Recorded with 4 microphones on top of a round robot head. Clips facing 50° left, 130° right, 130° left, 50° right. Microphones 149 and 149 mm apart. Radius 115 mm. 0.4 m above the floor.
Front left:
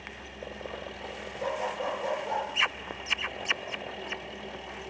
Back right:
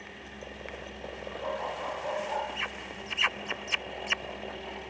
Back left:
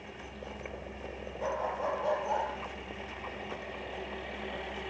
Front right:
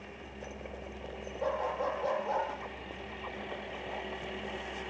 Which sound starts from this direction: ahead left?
A dog barking, at 1.4 s.